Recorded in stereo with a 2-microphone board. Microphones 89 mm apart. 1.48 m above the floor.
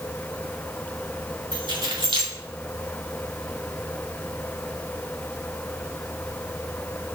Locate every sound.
1.5 s keys jangling: 70° right (ahead or behind), 2.5 m